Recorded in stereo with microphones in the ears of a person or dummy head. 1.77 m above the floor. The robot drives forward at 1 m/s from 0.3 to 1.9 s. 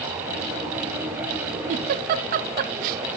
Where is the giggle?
40° right (ahead or behind), 0.8 m; by 3.0 s 50° right (ahead or behind), 0.7 m.